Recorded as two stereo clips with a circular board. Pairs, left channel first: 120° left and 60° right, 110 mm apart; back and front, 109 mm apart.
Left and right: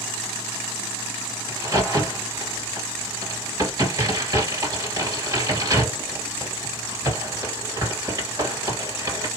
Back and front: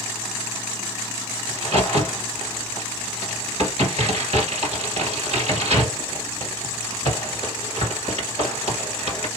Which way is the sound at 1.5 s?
5° right.